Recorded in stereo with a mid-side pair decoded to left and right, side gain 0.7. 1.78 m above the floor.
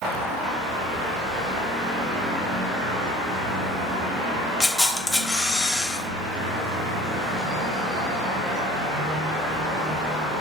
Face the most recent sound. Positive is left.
turn(degrees=5)